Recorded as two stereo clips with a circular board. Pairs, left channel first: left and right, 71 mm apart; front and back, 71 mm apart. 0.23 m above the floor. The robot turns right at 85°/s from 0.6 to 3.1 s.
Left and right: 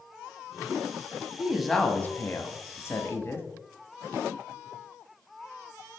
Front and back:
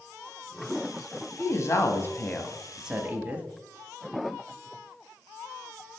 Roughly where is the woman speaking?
Ahead.